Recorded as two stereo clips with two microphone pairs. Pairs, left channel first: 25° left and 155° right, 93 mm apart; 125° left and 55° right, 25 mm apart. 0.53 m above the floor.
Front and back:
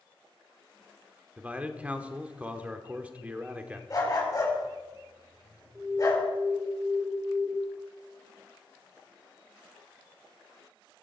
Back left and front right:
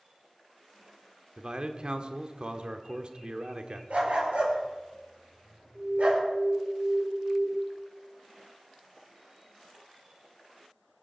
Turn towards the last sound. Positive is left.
turn(degrees=-130)